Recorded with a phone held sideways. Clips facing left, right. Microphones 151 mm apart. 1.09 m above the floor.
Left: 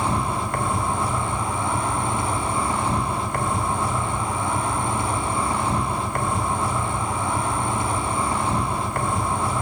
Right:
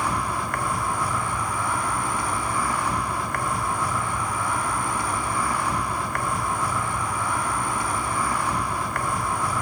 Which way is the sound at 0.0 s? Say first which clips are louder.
Left 3 dB; 25° left (ahead or behind).